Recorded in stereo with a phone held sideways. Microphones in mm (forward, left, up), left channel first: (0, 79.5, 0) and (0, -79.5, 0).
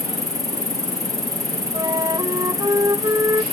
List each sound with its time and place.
0.0 s an insect: 20° right (ahead or behind)
1.7 s a flute: 25° right (ahead or behind)